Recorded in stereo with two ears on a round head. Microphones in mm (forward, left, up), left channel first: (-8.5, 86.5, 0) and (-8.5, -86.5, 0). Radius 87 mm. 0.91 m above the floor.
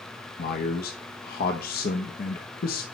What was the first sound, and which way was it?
A man speaking, 45° left (ahead or behind).